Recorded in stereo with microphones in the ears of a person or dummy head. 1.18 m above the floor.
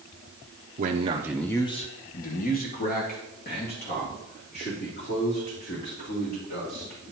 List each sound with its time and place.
0.8 s a man speaking: 40° right (ahead or behind), 0.6 m; by 7.0 s 50° left (ahead or behind), 5 m